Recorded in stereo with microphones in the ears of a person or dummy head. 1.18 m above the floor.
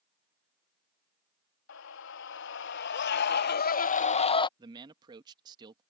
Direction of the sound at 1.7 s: 70° left (ahead or behind).